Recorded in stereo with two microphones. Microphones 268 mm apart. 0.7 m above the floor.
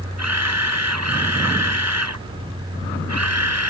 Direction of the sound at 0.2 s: 85° right.